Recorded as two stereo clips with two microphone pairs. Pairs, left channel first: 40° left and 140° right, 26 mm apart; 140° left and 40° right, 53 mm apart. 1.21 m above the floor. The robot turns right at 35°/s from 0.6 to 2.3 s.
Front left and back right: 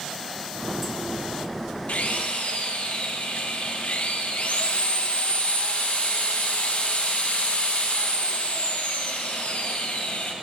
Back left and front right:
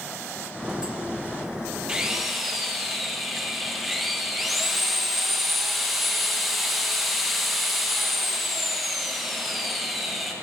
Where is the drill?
35° left, 1.1 m; by 10.3 s 50° left, 1.1 m.